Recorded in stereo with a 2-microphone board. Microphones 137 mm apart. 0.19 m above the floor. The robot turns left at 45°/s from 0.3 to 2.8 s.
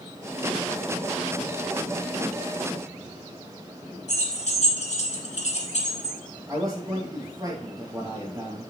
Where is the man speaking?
25° right (ahead or behind), 3 m.